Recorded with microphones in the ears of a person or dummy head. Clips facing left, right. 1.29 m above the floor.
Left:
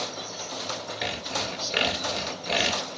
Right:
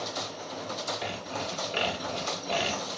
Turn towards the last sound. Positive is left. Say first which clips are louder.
# left 2 dB
turn(degrees=35)  # may be behind; listen again after turning